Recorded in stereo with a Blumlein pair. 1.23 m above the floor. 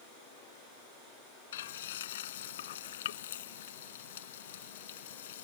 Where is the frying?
60° left.